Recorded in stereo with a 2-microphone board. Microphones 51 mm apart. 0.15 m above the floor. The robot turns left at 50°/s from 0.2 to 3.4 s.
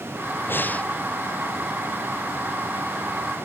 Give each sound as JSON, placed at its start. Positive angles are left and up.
{"t": 0.5, "sound": "breathing", "side_deg": 45}